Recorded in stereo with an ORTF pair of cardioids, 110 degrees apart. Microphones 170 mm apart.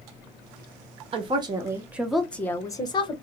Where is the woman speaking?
35° right, 1.0 m; by 3.1 s 30° left, 1.0 m.